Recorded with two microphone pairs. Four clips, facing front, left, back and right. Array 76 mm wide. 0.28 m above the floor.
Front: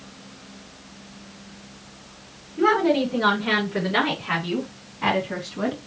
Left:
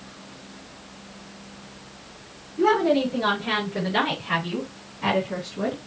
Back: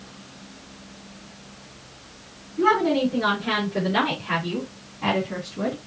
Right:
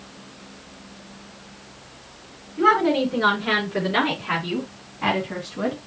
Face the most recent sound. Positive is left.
turn(degrees=-50)